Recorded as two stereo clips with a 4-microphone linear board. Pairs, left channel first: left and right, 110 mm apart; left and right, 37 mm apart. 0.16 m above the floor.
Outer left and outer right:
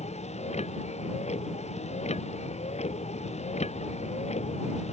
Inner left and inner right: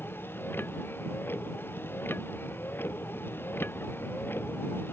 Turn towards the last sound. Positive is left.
turn(degrees=85)